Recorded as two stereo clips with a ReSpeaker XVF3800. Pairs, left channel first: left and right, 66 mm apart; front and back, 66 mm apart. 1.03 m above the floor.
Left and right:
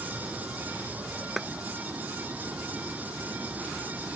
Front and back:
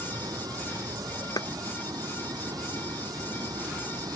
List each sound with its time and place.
0.0 s running water: 160° right
1.4 s a clap: 5° right